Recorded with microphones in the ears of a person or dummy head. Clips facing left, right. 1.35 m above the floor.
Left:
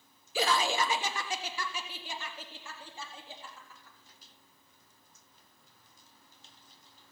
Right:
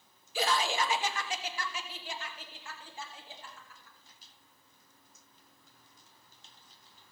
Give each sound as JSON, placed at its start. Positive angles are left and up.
{"t": 0.3, "sound": "laughter", "side_deg": 55, "distance_m": 0.7}